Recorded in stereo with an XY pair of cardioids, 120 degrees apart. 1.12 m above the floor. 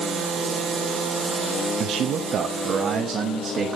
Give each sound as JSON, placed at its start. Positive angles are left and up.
{"t": 1.8, "sound": "a man speaking", "azimuth_deg": -65, "distance_m": 0.7}